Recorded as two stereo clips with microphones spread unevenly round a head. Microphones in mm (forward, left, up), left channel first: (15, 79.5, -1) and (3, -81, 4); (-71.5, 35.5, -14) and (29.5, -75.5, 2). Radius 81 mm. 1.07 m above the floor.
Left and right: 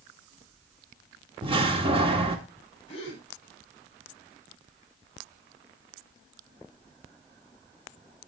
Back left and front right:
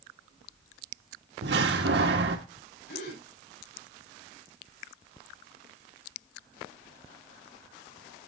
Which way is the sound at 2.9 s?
140° left.